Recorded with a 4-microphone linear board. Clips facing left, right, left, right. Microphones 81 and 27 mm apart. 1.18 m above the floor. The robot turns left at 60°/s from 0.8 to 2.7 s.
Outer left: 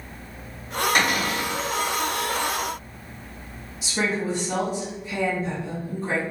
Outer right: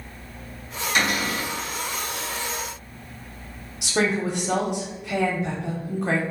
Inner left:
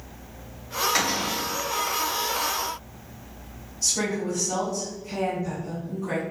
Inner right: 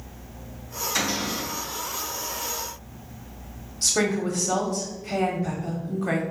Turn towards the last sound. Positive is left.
turn(degrees=-70)  # may be behind; listen again after turning